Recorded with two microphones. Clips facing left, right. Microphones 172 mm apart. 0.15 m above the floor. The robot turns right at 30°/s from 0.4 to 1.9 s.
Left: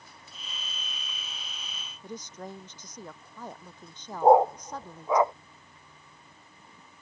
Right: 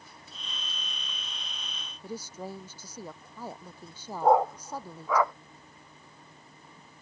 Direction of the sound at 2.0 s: 10° right (ahead or behind).